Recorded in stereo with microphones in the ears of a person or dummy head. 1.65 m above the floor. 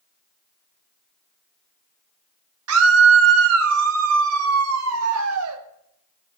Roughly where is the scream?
Right.